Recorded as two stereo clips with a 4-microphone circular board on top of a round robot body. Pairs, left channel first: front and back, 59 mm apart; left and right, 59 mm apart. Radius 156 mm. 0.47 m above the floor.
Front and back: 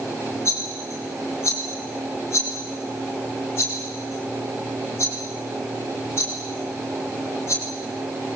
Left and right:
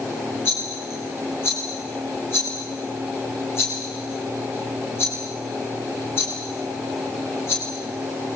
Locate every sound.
0.5 s a rattle: 40° left, 7.5 m